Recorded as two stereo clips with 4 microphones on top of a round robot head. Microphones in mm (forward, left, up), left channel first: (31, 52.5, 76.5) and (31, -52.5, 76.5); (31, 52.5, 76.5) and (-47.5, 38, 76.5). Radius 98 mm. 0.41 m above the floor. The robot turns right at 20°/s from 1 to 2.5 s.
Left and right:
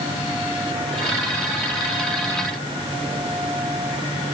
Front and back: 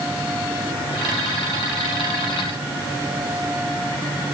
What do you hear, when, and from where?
Only background noise.